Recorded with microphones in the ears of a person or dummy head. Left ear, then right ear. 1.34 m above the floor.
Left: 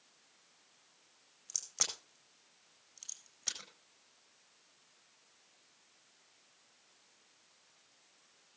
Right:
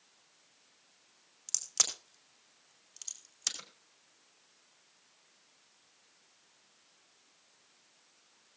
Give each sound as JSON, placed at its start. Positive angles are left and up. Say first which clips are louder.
{"t": 1.5, "sound": "a crack", "louder": "right 5 dB", "side_deg": -85, "distance_m": 4.5}